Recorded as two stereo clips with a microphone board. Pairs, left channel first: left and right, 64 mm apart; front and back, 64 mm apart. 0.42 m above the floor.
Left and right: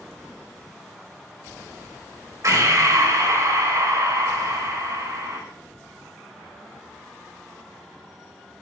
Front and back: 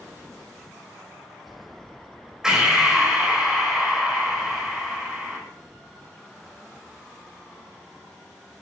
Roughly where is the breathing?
Right.